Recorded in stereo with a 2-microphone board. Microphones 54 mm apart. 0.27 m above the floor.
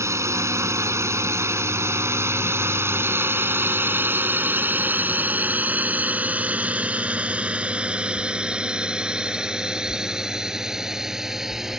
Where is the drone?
65° right (ahead or behind); by 11.8 s 10° right (ahead or behind).